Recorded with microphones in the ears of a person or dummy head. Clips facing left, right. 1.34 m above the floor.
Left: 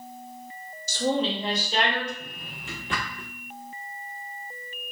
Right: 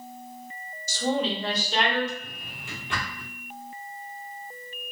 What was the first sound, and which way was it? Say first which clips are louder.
A woman speaking: left 1 dB; 50° left (ahead or behind).